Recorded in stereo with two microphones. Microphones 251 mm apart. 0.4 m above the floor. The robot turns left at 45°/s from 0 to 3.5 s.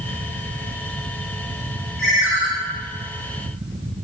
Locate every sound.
2.0 s a ringtone: centre (ahead or behind), 0.9 m; by 2.5 s 15° right (ahead or behind), 0.9 m